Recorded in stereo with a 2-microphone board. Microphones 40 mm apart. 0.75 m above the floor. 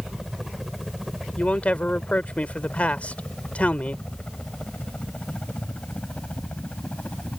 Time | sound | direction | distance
0.0 | a helicopter | 10° right (ahead or behind) | ?
1.4 | a man speaking | 35° left (ahead or behind) | ?